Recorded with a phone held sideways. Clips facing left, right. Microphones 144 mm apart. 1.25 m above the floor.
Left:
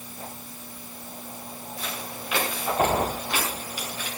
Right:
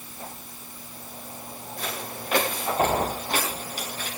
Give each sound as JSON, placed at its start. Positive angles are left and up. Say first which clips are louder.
{"t": 1.8, "sound": "footsteps", "louder": "right 3 dB", "side_deg": -45, "distance_m": 8.5}